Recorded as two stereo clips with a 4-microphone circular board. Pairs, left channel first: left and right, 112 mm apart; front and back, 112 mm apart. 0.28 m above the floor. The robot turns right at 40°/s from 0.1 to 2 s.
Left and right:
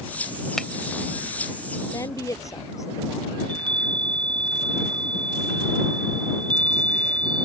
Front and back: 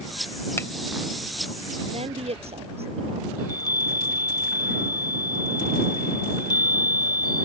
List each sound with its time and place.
0.6 s a finger snap: 10° left; by 0.7 s 15° left
1.9 s a woman speaking: 150° left
3.4 s a chime: 50° right